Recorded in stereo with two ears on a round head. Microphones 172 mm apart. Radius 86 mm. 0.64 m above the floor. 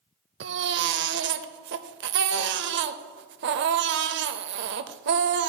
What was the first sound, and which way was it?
A baby crying, 60° right (ahead or behind).